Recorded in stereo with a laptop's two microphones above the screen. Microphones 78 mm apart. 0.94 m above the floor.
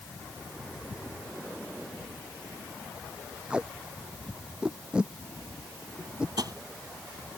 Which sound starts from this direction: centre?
Tape being pulled, at 3.5 s.